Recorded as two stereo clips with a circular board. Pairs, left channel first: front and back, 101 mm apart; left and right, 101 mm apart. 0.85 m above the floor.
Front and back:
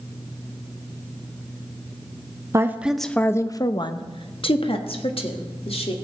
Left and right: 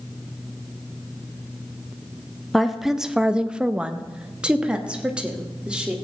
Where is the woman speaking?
Straight behind, 0.6 m; by 6.0 s 10° right, 1.9 m.